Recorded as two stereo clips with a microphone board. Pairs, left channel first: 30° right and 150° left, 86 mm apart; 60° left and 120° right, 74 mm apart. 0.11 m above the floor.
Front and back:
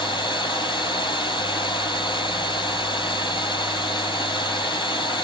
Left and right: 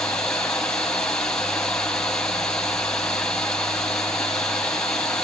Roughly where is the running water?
Ahead.